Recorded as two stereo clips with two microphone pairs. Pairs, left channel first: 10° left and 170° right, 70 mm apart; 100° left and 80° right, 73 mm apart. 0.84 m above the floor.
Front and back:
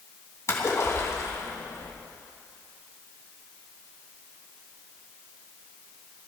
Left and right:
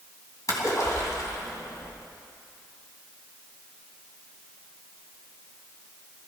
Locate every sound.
0.5 s a splash: 60° left, 3 m